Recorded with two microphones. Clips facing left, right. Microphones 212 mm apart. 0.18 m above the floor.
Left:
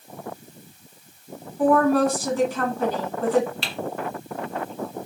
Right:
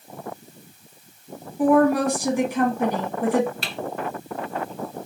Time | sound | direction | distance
1.6 | a woman speaking | 15° right (ahead or behind) | 1.5 m
3.6 | typing on a keyboard | 45° right (ahead or behind) | 1.5 m